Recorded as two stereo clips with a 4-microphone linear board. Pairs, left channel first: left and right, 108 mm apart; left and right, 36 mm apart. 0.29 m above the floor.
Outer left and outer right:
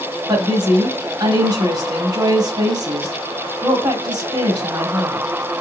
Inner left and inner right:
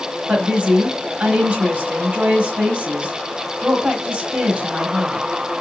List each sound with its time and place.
0.3 s a woman speaking: 40° right (ahead or behind), 1.4 m